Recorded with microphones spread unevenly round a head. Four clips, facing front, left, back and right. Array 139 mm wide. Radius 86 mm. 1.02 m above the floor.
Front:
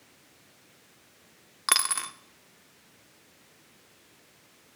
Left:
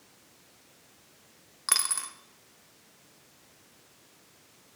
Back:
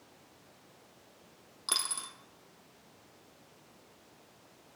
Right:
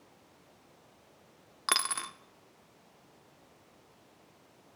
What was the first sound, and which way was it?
A dropped coin, 30° right.